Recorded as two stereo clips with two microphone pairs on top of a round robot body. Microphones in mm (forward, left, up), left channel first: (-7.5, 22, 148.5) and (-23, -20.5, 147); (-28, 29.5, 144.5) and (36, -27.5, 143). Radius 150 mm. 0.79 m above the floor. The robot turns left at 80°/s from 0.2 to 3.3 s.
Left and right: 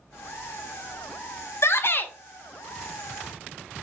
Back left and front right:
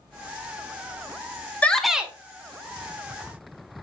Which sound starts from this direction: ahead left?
A shout, at 1.6 s.